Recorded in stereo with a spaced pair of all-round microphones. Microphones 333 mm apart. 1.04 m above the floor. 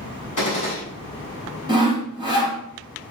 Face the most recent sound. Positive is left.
turn(degrees=-15)  # may be behind; listen again after turning